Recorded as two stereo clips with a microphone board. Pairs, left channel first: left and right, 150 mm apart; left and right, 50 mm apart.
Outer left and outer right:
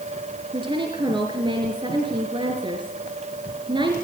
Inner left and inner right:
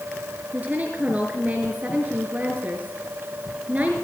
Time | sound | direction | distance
0.5 | a woman speaking | 35° right (ahead or behind) | 3 m